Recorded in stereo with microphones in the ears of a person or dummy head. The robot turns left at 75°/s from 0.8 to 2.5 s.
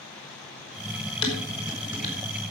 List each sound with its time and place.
1.2 s dishes clattering: 35° left (ahead or behind), 4.5 m; by 2.2 s 35° right (ahead or behind), 4.5 m